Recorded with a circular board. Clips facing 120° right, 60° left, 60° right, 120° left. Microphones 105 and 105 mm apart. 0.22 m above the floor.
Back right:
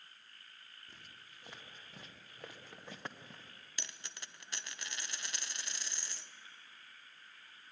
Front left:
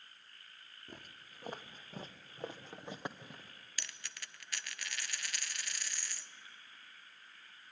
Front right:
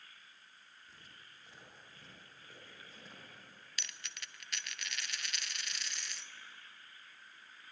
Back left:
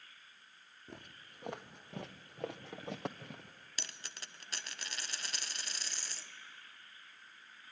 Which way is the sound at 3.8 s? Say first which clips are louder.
Even, even; 175° left.